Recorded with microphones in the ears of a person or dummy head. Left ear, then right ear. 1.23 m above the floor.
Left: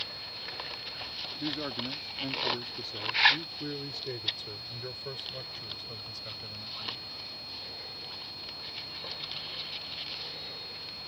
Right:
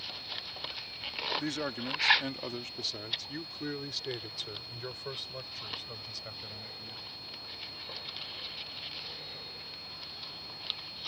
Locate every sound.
1.4 s a man speaking: 80° right; by 7.1 s 20° right (ahead or behind)